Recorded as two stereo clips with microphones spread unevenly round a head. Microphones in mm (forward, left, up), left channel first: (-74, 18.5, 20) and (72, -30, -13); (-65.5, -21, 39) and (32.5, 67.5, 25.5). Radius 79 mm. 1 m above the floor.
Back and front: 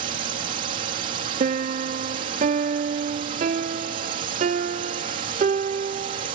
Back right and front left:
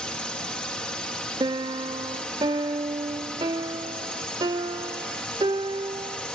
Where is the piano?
10° right.